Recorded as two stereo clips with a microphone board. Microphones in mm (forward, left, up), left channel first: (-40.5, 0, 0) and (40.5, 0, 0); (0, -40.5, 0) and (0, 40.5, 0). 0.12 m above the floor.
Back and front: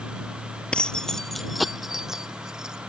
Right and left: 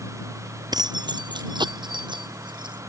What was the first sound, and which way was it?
Keys jangling, 105° left.